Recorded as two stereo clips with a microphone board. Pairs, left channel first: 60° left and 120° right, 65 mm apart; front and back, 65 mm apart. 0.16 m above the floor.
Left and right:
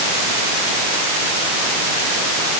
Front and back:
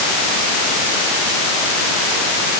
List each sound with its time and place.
Only background noise.